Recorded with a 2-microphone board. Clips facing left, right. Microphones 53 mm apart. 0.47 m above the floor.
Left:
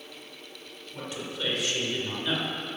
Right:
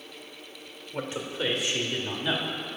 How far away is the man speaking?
About 1.2 m.